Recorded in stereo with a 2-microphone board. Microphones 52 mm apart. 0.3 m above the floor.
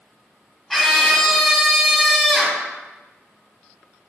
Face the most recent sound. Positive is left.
turn(degrees=5)  # may be behind; listen again after turning